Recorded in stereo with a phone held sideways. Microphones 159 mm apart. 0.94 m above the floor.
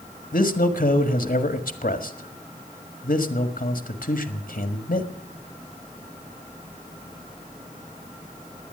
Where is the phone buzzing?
I don't hear a phone buzzing.